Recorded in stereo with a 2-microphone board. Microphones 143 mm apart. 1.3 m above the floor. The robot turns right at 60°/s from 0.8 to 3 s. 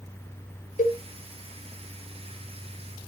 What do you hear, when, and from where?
0.8 s a cowbell: 65° left (ahead or behind), 1.0 m; by 1.0 s 70° left (ahead or behind), 1.0 m